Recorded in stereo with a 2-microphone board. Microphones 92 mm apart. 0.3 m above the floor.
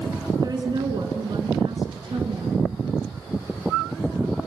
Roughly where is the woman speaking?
Right.